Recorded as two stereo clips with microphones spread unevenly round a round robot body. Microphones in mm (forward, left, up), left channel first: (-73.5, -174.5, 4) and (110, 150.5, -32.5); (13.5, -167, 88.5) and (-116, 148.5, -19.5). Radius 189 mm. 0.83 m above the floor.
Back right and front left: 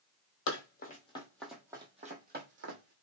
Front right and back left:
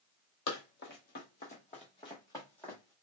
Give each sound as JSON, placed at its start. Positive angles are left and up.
{"t": 0.5, "sound": "running footsteps", "azimuth_deg": -80, "distance_m": 1.2}